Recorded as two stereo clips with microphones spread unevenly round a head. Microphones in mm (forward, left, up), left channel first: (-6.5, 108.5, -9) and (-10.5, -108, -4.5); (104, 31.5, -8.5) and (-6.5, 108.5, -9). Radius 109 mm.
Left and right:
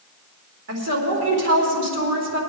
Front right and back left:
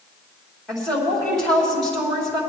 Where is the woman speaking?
125° right, 4 m.